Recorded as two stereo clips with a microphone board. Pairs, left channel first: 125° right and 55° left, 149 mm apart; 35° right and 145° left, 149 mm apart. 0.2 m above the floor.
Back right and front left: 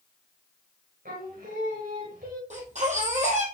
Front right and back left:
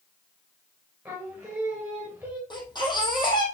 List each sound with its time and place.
1.1 s singing: 65° left, 4.5 m
2.5 s a baby crying: 25° left, 2.5 m